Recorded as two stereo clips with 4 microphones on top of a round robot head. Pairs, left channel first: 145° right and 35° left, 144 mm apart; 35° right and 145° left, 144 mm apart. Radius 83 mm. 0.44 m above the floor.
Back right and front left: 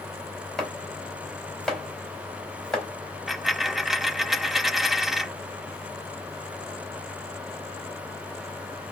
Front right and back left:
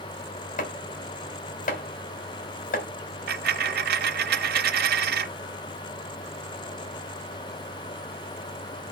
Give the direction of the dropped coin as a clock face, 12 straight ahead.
8 o'clock.